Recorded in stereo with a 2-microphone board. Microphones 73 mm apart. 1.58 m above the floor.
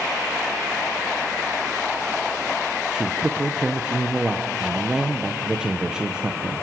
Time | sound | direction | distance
2.9 | a man speaking | 10° right (ahead or behind) | 1.1 m